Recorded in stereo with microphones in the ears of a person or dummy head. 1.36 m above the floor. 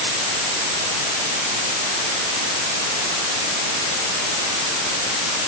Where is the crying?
No crying in this recording.